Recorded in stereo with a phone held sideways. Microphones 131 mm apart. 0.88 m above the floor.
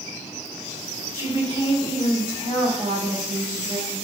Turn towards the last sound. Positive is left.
turn(degrees=-75)  # may be behind; listen again after turning